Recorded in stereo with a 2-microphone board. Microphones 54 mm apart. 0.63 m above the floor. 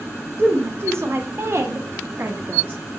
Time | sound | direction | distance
0.4 | a woman speaking | 40° right (ahead or behind) | 2 m